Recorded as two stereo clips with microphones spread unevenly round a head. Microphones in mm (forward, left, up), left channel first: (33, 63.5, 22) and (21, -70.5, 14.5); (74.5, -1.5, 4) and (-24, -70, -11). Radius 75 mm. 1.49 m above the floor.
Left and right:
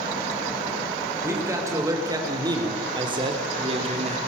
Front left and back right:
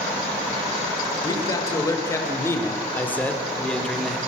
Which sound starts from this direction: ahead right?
A man speaking, at 1.2 s.